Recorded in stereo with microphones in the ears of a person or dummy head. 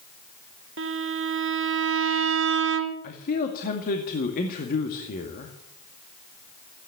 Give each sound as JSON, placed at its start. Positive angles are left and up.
{"t": 0.8, "sound": "a violin", "side_deg": -55, "distance_m": 1.1}
{"t": 3.0, "sound": "a man speaking", "side_deg": 45, "distance_m": 2.0}